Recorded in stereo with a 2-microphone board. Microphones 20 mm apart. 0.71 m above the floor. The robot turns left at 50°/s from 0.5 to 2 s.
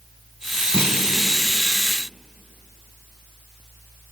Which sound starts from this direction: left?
A clunk, at 0.7 s.